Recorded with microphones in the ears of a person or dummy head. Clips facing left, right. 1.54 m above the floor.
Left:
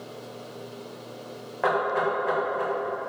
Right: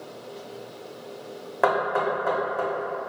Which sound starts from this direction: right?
Knocking, at 1.6 s.